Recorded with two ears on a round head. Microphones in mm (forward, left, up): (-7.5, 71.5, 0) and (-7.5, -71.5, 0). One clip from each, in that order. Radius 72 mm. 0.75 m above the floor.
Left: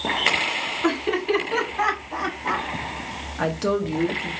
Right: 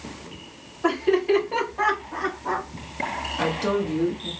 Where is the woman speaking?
15° left (ahead or behind), 1.0 m.